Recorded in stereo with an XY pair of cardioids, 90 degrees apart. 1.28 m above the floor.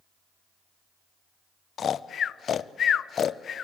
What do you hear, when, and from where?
1.8 s snoring: 65° left, 0.6 m